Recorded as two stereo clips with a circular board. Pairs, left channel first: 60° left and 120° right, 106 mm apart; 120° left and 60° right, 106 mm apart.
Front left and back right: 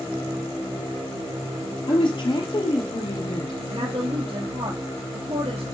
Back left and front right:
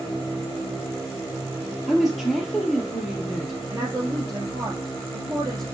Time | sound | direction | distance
1.9 | a woman speaking | 30° left | 3 m
3.7 | a woman speaking | 110° right | 2.5 m